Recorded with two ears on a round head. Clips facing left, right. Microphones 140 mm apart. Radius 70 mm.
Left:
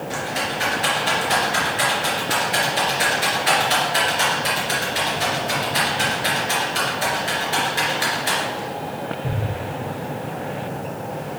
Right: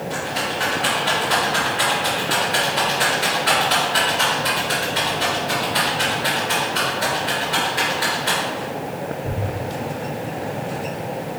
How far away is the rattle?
About 3 m.